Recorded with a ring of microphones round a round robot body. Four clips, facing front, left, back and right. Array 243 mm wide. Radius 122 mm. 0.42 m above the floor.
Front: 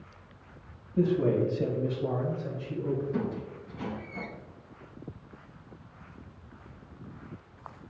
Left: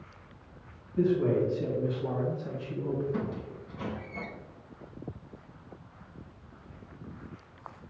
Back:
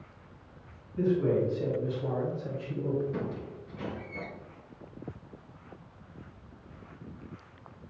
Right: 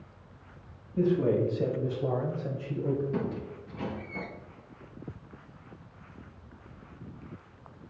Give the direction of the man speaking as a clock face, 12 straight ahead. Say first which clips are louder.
Even, front 1 dB; 1 o'clock.